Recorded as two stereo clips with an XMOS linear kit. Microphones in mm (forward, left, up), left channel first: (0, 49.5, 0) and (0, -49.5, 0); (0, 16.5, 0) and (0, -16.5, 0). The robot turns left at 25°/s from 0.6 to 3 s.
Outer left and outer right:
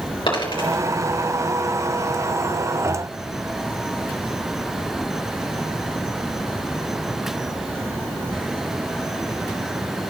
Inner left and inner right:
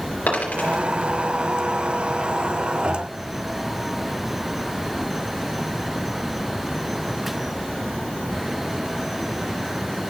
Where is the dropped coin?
60° left (ahead or behind), 3 m; by 0.8 s 65° left (ahead or behind), 3 m.